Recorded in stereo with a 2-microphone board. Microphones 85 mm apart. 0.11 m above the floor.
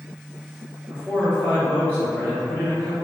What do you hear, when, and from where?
0.9 s a man speaking: 15° left (ahead or behind), 1.6 m